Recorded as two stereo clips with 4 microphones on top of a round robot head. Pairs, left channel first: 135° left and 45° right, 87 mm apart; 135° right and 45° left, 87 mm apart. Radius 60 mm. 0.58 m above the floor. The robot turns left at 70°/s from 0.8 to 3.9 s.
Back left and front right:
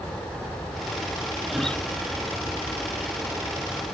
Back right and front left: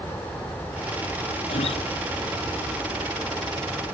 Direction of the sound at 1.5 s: 130° right.